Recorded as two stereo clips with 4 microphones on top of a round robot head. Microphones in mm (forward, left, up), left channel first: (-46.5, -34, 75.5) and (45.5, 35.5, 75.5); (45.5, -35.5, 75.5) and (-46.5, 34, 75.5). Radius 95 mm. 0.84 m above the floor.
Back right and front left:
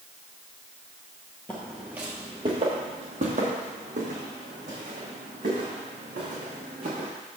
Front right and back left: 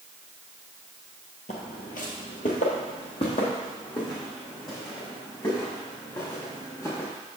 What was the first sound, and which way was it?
Footsteps, 65° right.